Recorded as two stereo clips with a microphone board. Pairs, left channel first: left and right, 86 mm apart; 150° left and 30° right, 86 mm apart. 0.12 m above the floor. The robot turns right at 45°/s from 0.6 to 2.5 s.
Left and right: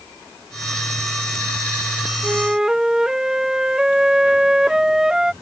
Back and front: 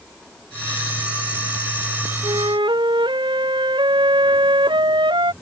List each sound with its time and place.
2.2 s a flute: 20° right; by 5.3 s 5° right